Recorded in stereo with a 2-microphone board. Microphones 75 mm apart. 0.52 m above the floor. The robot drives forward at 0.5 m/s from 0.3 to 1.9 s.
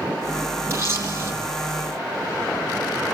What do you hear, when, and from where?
0.7 s a camera shutter: 35° right (ahead or behind), 5.5 m